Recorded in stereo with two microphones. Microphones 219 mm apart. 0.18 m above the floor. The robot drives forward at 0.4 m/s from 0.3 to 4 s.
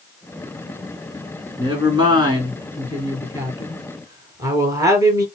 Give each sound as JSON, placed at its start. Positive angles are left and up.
{"t": 1.6, "sound": "a woman speaking", "side_deg": -20, "distance_m": 2.5}